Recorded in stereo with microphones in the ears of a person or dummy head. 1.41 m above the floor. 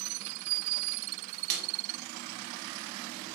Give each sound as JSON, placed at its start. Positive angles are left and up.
{"t": 1.5, "sound": "a snare drum", "side_deg": -55, "distance_m": 1.4}